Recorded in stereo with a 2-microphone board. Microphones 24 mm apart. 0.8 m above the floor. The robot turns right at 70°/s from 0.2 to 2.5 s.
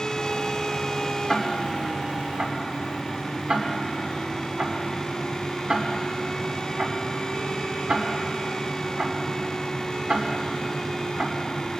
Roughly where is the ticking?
Centre.